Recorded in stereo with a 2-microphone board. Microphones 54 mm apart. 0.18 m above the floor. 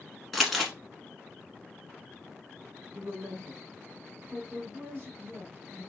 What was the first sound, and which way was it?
Crumpling, centre (ahead or behind).